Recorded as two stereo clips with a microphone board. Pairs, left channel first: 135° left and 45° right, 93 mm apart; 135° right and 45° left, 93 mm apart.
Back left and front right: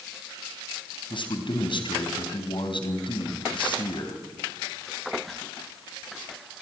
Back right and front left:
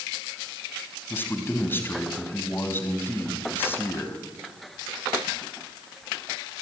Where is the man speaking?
160° left, 3.5 m.